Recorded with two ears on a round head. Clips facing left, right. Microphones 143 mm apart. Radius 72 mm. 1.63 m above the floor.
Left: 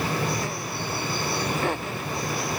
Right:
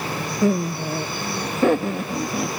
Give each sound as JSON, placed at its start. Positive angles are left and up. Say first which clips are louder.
{"t": 0.4, "sound": "laughter", "louder": "right 10 dB", "side_deg": -80}